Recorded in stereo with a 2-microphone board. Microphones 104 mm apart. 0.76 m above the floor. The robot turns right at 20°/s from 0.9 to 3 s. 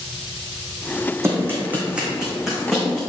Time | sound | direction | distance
1.2 | running footsteps | 25° right (ahead or behind) | 2 m